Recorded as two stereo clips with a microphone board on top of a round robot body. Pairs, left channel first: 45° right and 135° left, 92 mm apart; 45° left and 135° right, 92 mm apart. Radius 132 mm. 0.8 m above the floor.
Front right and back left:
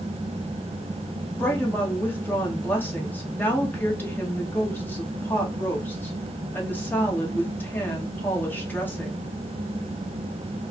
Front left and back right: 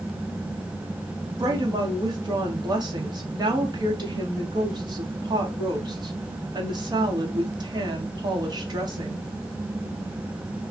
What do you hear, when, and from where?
1.4 s a woman speaking: 110° right, 1.3 m